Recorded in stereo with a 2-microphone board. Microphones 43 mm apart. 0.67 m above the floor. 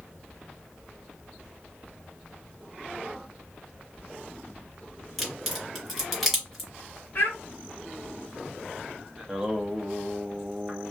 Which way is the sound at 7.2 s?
50° left (ahead or behind).